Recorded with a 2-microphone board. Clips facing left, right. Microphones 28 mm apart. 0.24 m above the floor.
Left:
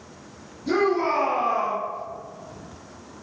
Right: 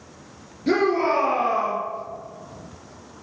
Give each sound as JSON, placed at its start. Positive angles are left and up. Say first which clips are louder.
{"t": 0.7, "sound": "a shout", "louder": "right 2 dB", "side_deg": -40, "distance_m": 3.5}